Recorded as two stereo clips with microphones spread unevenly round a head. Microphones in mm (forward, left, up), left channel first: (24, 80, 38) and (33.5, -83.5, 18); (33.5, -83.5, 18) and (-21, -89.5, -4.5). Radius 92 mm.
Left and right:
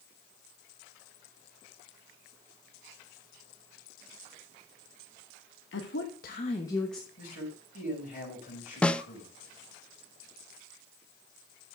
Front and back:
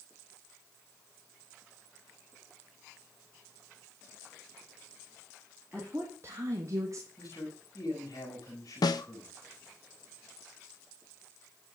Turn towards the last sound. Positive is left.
turn(degrees=5)